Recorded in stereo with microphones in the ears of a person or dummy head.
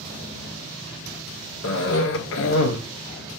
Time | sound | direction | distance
1.6 | a cough | 70° left (ahead or behind) | 0.6 m